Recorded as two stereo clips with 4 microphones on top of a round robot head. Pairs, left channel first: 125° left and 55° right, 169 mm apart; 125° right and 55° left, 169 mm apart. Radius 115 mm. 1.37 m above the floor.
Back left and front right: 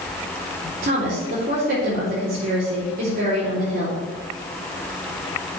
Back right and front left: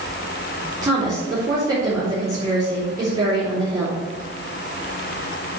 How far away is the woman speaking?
About 3 m.